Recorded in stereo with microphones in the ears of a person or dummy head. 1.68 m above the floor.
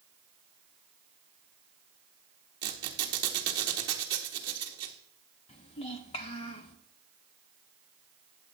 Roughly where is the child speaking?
Left.